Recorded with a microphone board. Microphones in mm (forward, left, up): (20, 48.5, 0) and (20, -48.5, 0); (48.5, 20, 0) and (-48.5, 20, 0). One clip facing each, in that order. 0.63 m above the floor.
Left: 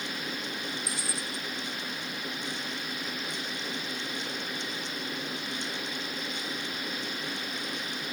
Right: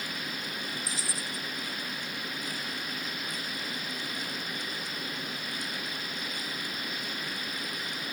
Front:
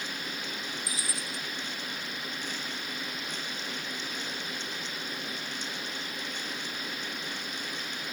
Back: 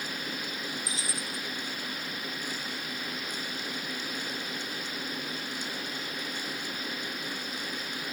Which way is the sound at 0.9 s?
115° left.